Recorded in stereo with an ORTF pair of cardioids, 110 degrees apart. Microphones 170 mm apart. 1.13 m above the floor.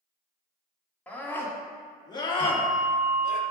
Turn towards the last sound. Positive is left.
turn(degrees=-25)